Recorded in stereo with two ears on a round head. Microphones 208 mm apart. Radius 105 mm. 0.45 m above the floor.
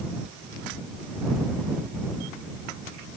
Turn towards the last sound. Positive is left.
No sound to turn to.